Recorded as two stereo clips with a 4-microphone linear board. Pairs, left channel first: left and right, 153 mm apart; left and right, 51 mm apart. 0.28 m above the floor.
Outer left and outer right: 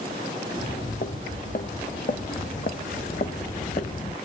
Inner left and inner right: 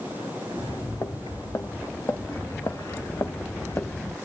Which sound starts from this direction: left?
Footsteps, at 0.5 s.